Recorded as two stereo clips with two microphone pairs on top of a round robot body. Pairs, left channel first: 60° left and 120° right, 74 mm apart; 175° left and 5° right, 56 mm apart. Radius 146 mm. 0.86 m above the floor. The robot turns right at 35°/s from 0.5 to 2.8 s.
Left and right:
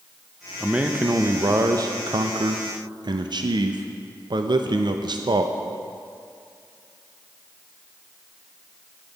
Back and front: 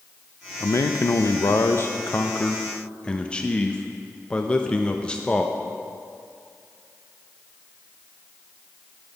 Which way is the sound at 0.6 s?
165° left.